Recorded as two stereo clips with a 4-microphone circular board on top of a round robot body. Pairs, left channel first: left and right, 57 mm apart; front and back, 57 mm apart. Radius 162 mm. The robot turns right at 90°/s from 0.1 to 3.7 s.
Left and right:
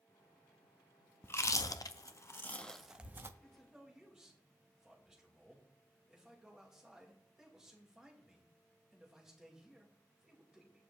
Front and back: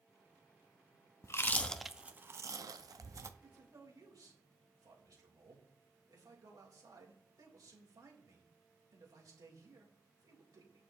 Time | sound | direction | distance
1.2 | chewing | 35° left | 0.7 m
3.4 | a man speaking | 160° left | 3.5 m